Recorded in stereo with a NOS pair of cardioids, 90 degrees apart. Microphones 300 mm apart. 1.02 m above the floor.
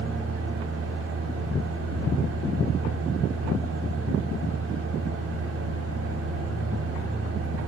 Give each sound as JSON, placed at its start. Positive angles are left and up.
{"t": 0.0, "sound": "a fan", "azimuth_deg": -50, "distance_m": 4.0}